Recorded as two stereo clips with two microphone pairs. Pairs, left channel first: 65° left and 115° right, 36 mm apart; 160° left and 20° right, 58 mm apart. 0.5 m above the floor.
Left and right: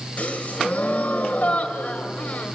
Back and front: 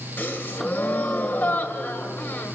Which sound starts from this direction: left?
A gasp, at 0.2 s.